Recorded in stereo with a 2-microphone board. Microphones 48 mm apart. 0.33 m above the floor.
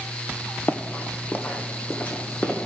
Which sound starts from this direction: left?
Running footsteps, at 0.7 s.